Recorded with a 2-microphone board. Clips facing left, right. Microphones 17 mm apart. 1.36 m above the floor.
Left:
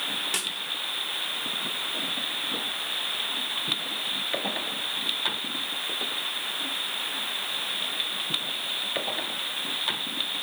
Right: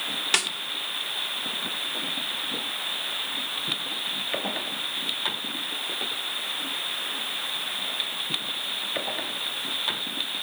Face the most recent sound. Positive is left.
turn(degrees=-35)  # may be behind; listen again after turning